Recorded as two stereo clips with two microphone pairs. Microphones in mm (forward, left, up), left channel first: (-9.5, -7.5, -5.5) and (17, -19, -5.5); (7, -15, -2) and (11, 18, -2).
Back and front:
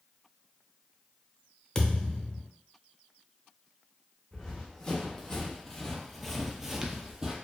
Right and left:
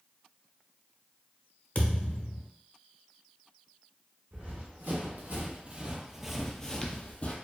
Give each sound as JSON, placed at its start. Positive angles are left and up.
{"t": 1.8, "sound": "a thud", "azimuth_deg": -130, "distance_m": 0.6}
{"t": 4.3, "sound": "running footsteps", "azimuth_deg": 90, "distance_m": 1.2}